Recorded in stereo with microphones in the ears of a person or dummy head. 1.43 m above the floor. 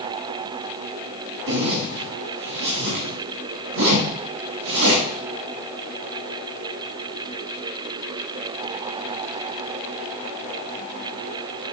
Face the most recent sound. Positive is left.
turn(degrees=-70)  # may be behind; listen again after turning